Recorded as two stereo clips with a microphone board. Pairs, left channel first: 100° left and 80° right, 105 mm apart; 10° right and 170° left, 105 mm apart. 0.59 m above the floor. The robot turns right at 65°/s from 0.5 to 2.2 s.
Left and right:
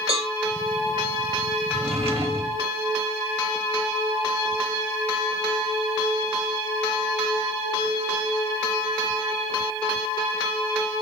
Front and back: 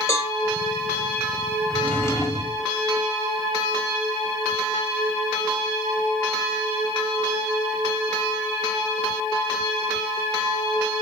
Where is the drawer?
100° right, 1.1 m; by 2.6 s 65° right, 1.1 m.